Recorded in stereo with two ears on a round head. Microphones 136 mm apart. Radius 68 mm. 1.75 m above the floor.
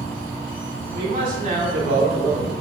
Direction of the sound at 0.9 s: 65° right (ahead or behind).